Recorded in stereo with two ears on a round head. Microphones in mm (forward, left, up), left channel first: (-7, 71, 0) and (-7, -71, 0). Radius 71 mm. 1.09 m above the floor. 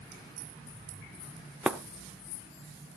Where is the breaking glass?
5° right (ahead or behind), 0.8 m.